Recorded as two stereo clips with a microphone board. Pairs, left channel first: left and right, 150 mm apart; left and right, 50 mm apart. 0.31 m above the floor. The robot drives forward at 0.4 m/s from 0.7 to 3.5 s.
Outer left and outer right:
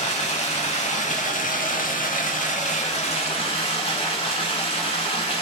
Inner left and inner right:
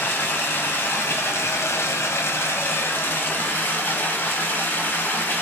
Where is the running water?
45° left (ahead or behind), 0.8 m; by 5.4 s 40° left (ahead or behind), 0.9 m.